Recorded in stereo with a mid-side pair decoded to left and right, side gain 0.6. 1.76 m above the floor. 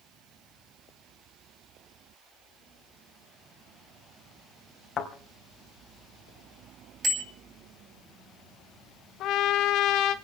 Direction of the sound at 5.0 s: 40° left.